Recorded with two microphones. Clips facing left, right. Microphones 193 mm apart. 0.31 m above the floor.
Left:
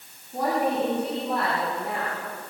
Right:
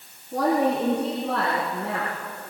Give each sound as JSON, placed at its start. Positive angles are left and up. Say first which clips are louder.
{"t": 0.3, "sound": "a woman speaking", "louder": "right 3 dB", "side_deg": -85, "distance_m": 9.5}